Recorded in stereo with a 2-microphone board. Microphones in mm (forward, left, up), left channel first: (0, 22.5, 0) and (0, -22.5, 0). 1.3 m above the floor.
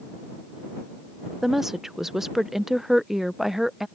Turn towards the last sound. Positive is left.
turn(degrees=-10)  # may be behind; listen again after turning